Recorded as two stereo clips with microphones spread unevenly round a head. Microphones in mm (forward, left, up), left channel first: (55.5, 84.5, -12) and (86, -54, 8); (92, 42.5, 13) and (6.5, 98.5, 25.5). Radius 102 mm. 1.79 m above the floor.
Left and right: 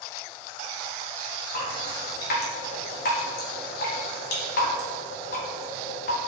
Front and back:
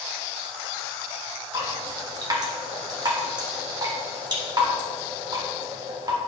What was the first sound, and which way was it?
Dripping, 100° left.